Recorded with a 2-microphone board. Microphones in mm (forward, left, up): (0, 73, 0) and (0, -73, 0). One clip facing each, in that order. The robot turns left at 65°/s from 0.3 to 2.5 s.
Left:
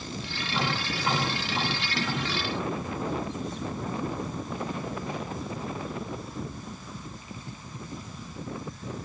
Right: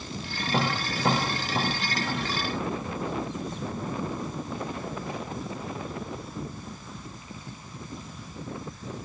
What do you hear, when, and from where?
0.5 s tapping: 60° right (ahead or behind), 7.5 m; by 2.3 s 5° right (ahead or behind), 7.5 m